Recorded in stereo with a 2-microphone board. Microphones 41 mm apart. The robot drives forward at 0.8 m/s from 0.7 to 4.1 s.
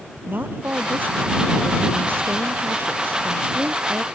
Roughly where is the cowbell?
No cowbell in this recording.